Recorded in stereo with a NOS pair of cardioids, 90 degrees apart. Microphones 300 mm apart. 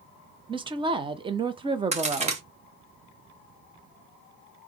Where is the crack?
20° right, 1.1 m.